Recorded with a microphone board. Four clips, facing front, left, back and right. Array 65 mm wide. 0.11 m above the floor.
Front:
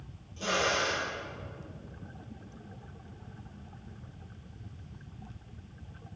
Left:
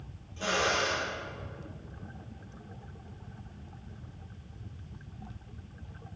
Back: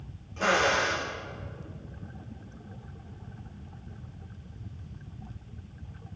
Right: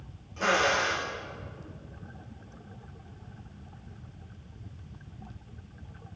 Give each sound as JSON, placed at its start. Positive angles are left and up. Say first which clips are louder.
{"t": 0.4, "sound": "a drill", "louder": "right 4 dB, back 5 dB", "azimuth_deg": -160, "distance_m": 7.0}